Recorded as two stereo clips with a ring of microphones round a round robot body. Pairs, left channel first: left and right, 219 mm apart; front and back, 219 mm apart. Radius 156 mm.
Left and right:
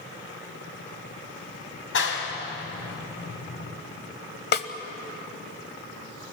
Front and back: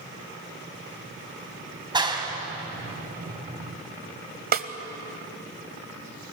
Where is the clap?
110° left, 3 m.